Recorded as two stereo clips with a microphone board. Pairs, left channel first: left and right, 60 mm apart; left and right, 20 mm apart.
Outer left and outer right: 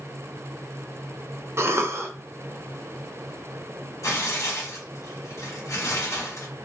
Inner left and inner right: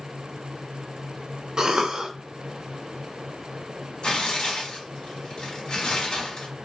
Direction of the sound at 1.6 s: 45° right (ahead or behind).